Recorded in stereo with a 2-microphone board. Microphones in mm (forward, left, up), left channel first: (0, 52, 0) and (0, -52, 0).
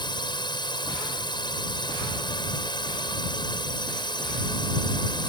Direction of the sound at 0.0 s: 45° left (ahead or behind).